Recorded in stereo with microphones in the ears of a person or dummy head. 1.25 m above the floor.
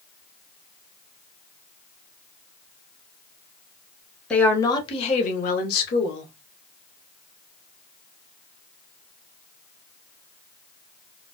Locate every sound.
4.3 s a woman speaking: 5° left (ahead or behind), 0.7 m; by 6.3 s 60° left (ahead or behind), 1.2 m